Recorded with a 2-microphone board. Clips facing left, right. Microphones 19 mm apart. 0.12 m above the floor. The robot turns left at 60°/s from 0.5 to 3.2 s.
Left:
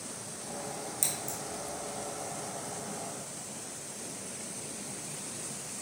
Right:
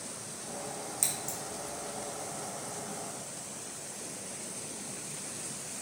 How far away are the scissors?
About 1.9 m.